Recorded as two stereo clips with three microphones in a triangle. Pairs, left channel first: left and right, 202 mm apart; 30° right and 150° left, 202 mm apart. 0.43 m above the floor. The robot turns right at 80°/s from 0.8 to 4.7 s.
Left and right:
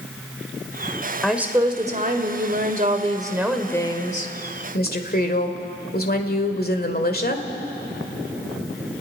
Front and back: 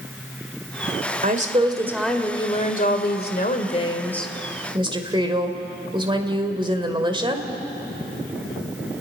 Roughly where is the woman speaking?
Behind.